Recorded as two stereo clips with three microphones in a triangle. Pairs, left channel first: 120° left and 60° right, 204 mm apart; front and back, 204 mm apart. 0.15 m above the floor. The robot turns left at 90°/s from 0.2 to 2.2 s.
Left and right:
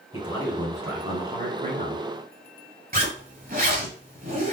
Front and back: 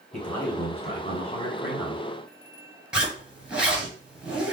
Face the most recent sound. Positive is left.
turn(degrees=-95)